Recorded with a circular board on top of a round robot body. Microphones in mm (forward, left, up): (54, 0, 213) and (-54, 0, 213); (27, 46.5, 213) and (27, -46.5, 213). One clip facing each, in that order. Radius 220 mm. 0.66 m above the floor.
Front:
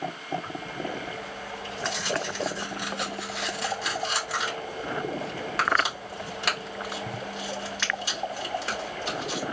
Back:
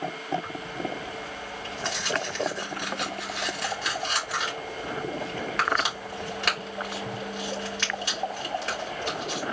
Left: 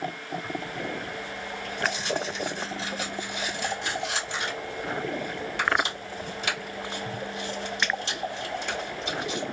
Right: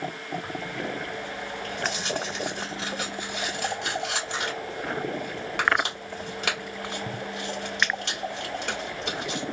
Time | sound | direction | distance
0.4 | tearing paper | 85° right | 2.5 m